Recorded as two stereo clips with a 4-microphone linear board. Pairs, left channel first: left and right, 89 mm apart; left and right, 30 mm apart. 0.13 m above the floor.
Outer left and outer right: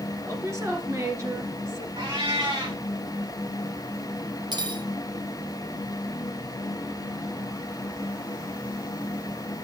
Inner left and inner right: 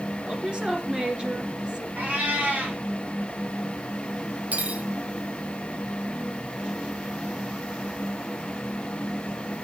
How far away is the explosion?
No explosion in this recording.